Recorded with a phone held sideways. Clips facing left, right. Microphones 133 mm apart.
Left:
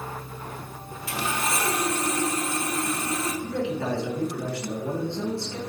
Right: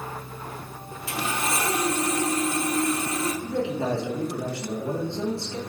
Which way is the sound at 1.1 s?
25° right (ahead or behind).